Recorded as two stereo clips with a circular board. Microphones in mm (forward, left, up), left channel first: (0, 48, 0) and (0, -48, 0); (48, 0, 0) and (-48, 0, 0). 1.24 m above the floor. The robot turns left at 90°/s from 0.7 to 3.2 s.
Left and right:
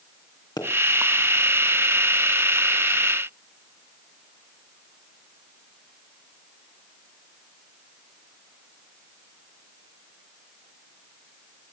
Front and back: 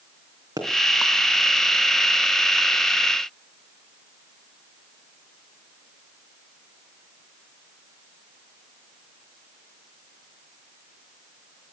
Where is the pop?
130° left, 4 m.